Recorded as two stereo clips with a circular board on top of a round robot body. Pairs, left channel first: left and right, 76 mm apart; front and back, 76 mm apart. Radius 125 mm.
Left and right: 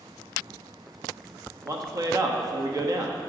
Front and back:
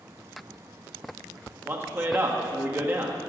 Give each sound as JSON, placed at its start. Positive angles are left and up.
{"t": 1.6, "sound": "a man speaking", "azimuth_deg": -125, "distance_m": 1.5}